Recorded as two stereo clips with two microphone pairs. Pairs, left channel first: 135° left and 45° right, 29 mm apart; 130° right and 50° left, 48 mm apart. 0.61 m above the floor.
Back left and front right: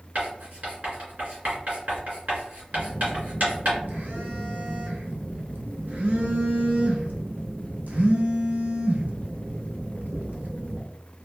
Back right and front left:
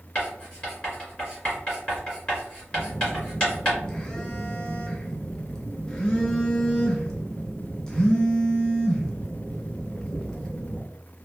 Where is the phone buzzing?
55° right, 0.7 m.